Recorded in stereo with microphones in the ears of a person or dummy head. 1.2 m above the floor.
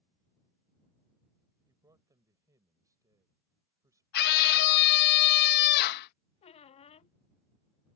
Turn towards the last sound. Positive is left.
turn(degrees=30)  # may be behind; listen again after turning